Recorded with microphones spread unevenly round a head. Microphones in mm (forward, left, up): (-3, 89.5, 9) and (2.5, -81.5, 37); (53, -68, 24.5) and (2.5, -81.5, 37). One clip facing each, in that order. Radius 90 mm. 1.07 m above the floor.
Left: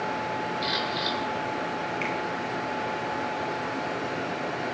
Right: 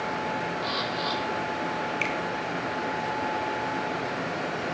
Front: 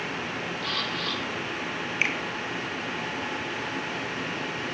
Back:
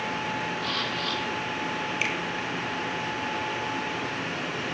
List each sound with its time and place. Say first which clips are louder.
0.6 s a camera shutter: even, back 1 dB; 75° left, 9.5 m
2.0 s a finger snap: even, front 3 dB; 35° right, 2.5 m